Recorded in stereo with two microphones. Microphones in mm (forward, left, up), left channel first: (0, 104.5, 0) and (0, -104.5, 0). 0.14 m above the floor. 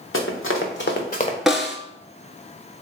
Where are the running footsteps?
85° left, 1.3 m; by 1.4 s 25° left (ahead or behind), 0.9 m.